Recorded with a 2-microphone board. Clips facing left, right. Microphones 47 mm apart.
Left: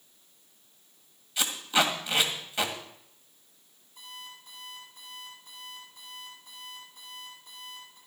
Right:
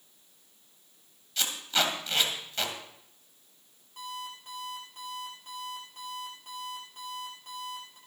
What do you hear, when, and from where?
1.4 s tape being pulled: 15° left (ahead or behind), 1.7 m
4.0 s an alarm clock: 55° right (ahead or behind), 6.5 m